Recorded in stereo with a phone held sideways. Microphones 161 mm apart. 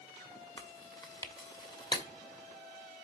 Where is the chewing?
25° left (ahead or behind), 1.0 m.